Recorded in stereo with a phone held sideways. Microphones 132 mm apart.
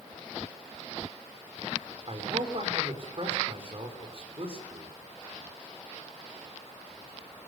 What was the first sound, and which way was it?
A man speaking, 45° right (ahead or behind).